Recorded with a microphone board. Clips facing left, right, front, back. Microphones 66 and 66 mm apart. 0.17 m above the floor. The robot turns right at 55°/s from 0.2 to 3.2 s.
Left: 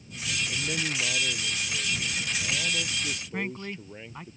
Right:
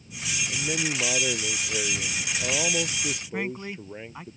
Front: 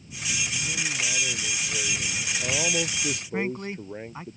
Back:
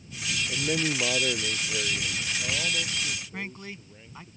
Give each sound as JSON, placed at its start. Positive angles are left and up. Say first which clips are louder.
{"t": 0.5, "sound": "a man speaking", "louder": "right 5 dB, back 4 dB", "azimuth_deg": -175}
{"t": 3.3, "sound": "a man speaking", "louder": "right 2 dB, front 9 dB", "azimuth_deg": -15}